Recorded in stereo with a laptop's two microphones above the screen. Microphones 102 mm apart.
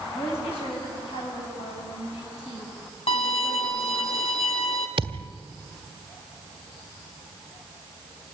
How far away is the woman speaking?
About 7.5 m.